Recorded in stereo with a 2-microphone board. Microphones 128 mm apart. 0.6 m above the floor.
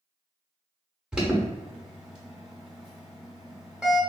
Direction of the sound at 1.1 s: 5° right (ahead or behind).